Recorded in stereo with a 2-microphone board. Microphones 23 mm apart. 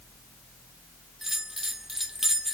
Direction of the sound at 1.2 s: 15° right (ahead or behind).